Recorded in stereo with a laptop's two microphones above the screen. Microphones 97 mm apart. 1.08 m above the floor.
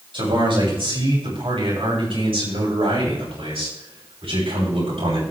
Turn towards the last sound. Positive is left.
turn(degrees=-85)